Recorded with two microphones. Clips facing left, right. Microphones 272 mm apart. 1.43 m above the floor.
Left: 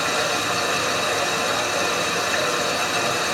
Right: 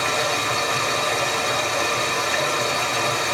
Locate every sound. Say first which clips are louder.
0.0 s running water: even; 10° left (ahead or behind), 1.6 m